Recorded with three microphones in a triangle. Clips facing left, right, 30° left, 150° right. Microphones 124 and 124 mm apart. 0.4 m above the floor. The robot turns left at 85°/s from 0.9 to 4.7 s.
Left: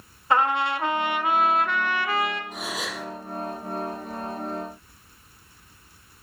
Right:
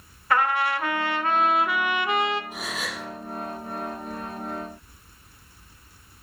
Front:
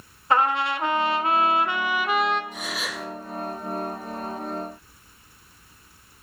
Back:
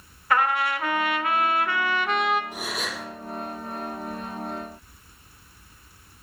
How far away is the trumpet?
About 1.1 m.